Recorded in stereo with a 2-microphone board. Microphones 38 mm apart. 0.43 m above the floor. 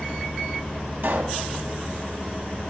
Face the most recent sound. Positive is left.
turn(degrees=-70)  # may be behind; listen again after turning